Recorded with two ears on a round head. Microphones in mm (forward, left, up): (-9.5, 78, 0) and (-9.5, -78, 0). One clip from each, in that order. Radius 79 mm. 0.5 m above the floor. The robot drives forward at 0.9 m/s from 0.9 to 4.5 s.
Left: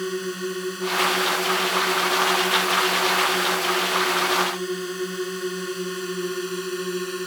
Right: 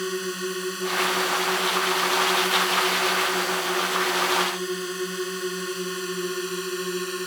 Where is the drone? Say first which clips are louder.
Even; 25° right (ahead or behind); by 7.3 s 20° right (ahead or behind).